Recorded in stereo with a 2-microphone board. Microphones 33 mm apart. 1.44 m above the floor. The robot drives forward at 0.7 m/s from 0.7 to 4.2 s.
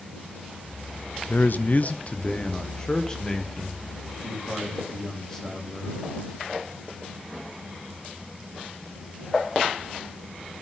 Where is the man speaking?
60° left (ahead or behind), 0.5 m; by 6.0 s 15° left (ahead or behind), 2 m.